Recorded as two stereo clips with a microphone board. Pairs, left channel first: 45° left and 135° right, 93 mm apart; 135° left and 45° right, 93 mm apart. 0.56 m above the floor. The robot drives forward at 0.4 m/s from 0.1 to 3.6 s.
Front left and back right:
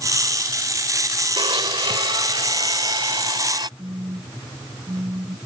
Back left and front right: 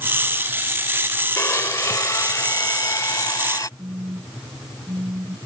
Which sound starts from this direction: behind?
A blender, at 1.4 s.